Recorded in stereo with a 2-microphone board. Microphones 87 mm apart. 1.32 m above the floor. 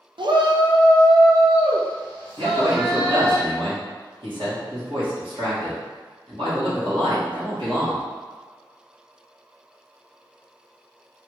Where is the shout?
65° right (ahead or behind), 0.6 m.